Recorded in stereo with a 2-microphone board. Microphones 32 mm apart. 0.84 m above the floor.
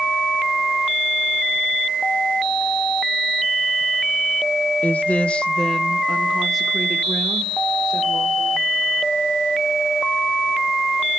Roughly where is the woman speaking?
Left.